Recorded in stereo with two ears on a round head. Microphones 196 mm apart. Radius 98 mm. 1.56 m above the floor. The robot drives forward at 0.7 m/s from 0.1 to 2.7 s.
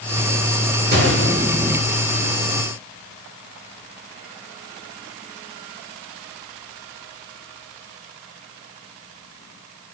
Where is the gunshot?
50° right (ahead or behind), 2 m; by 1.9 s 55° right (ahead or behind), 1.9 m.